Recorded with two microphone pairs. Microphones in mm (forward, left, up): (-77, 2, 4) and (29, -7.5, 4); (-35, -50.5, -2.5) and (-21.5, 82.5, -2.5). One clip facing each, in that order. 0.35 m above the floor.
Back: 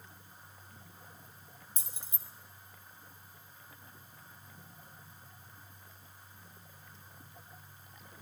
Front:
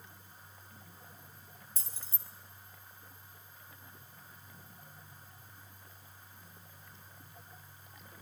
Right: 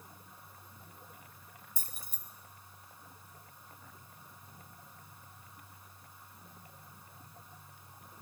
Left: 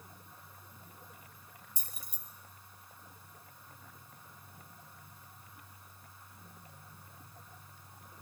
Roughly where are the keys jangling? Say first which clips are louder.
Back 1 dB, right 1 dB; behind right.